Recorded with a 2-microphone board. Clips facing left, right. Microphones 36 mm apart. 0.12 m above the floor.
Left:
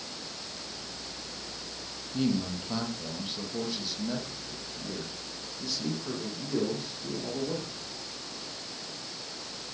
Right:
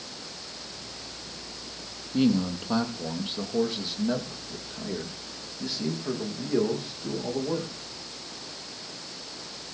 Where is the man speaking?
35° right (ahead or behind), 3.5 m; by 7.7 s 15° right (ahead or behind), 7 m.